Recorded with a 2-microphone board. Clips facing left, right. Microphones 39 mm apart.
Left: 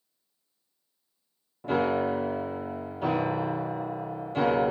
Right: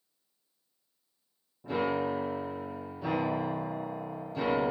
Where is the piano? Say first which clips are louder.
Left 4 dB; 65° left (ahead or behind), 1.5 m.